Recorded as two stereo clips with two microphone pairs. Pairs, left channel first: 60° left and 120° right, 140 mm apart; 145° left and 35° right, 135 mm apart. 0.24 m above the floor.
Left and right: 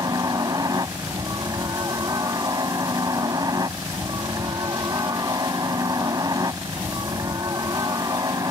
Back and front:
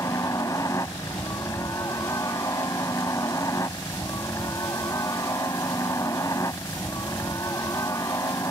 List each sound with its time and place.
0.0 s a helicopter: 165° right